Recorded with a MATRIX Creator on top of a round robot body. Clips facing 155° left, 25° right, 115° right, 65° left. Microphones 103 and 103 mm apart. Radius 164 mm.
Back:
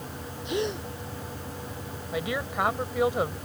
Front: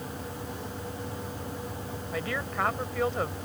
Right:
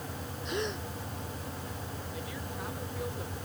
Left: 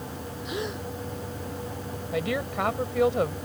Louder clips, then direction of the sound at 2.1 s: Back 3 dB, left 17 dB; 80° left.